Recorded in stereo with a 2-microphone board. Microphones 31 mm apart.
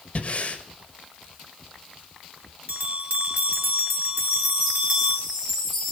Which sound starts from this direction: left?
Breathing, at 0.1 s.